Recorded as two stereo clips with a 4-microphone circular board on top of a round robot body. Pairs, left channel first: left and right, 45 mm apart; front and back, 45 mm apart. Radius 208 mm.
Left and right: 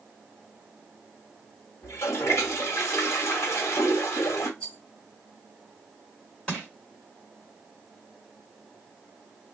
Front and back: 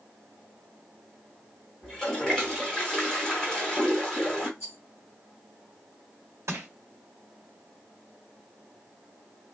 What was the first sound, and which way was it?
A toilet flushing, 80° left.